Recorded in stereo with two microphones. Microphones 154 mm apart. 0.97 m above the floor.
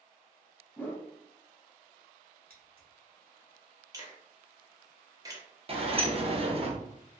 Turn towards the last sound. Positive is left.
turn(degrees=-40)  # may be behind; listen again after turning